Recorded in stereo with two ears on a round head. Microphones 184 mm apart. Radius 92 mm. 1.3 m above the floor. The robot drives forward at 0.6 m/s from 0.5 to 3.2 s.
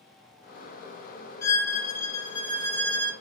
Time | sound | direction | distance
1.4 | a violin | 15° left (ahead or behind) | 1.2 m